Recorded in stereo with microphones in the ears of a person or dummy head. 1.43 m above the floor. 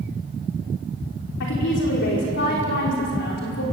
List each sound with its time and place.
1.4 s a woman speaking: 60° left (ahead or behind), 5 m